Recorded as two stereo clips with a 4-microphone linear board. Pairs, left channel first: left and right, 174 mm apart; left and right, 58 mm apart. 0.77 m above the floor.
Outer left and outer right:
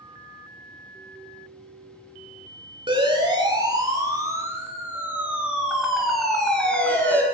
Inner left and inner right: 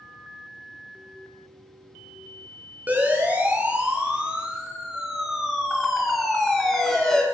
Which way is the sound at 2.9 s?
30° right (ahead or behind).